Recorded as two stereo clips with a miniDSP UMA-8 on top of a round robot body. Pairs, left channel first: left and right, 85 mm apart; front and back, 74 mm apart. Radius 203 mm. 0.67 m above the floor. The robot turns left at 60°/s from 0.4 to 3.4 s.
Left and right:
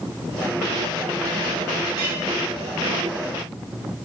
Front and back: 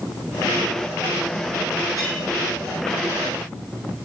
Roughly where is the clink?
Behind left.